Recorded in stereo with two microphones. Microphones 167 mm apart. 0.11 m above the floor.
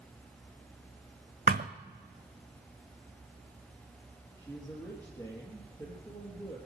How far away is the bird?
I don't hear a bird.